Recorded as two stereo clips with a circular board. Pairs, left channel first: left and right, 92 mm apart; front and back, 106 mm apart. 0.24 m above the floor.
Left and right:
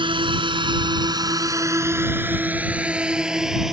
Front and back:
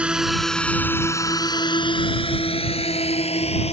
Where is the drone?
100° right; by 3.7 s 5° right.